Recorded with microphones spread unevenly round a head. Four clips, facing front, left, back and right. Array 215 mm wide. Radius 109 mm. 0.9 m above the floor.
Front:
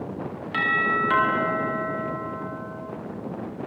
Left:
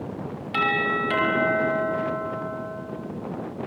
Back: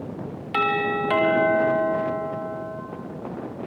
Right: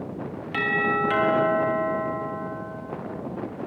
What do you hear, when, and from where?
0.5 s a doorbell: straight behind, 3.5 m